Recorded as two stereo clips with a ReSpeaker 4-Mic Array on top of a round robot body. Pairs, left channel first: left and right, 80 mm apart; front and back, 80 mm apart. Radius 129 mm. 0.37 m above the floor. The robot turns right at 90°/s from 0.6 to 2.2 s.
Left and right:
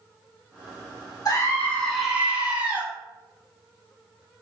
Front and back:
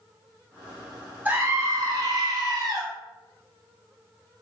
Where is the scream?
115° left, 1.9 m; by 2.8 s 160° right, 1.9 m.